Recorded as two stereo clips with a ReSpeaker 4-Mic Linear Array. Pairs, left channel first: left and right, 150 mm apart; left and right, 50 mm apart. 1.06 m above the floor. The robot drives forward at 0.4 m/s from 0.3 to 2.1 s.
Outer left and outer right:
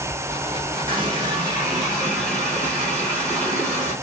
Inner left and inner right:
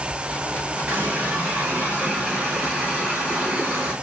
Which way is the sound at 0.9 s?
35° right (ahead or behind).